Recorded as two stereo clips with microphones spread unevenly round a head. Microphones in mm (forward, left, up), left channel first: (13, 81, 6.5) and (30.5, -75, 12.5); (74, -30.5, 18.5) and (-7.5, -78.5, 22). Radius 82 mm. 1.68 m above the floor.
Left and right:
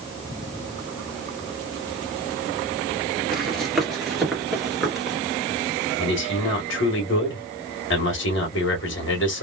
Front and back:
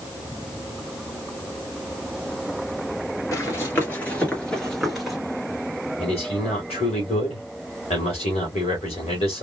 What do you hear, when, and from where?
3.3 s running footsteps: 5° left, 1.8 m; by 5.2 s 145° right, 1.6 m
6.0 s a man speaking: 85° left, 1.7 m